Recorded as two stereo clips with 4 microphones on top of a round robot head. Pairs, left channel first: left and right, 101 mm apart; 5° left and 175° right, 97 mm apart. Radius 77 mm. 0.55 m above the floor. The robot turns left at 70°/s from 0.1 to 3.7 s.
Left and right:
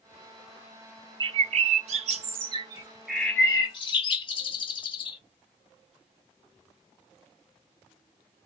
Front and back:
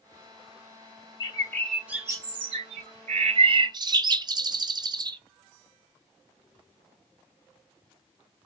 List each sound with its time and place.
1.2 s a bird: 45° right, 0.5 m; by 5.2 s 140° left, 0.5 m